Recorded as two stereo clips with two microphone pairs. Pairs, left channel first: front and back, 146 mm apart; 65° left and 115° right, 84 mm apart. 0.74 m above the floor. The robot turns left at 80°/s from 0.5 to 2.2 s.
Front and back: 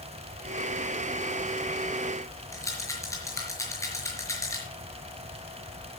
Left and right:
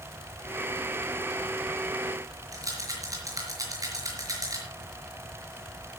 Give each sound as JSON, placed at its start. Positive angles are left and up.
{"t": 2.5, "sound": "a rattle", "azimuth_deg": -70, "distance_m": 5.0}